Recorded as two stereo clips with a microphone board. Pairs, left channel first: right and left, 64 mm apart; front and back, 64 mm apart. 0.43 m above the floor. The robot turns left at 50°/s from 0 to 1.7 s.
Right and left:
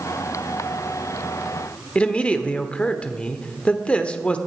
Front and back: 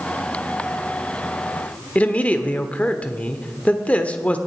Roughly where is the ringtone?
No ringtone in this recording.